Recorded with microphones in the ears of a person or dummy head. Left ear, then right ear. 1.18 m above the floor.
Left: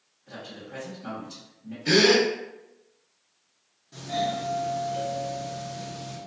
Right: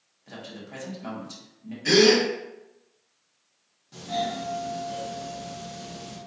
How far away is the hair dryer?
I don't hear a hair dryer.